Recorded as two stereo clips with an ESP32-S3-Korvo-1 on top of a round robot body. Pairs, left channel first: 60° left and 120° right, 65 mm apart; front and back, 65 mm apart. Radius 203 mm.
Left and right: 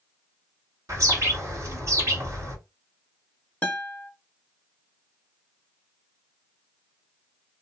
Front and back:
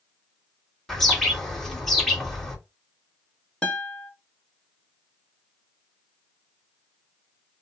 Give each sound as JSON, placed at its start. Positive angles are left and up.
{"t": 0.9, "sound": "a bird", "azimuth_deg": -85, "distance_m": 1.9}
{"t": 3.6, "sound": "a guitar", "azimuth_deg": 45, "distance_m": 1.1}